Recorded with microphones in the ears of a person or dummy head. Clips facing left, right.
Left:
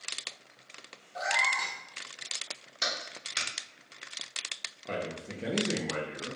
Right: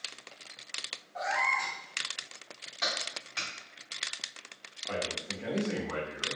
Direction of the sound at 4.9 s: 30° left (ahead or behind).